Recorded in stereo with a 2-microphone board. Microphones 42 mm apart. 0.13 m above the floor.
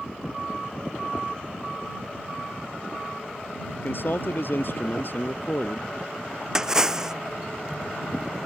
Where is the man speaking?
55° left (ahead or behind).